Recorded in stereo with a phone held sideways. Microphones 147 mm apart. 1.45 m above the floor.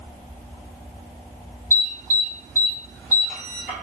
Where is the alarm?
60° left (ahead or behind), 1.7 m.